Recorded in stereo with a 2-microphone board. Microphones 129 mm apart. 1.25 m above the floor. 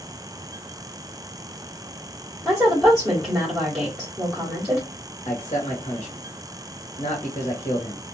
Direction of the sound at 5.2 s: 70° left (ahead or behind).